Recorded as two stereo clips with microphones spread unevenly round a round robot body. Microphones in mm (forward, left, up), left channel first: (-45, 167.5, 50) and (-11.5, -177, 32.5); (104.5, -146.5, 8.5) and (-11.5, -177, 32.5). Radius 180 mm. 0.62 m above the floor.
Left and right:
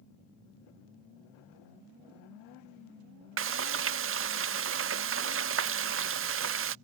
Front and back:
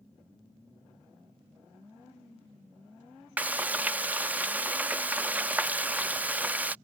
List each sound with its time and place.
3.4 s frying: 80° right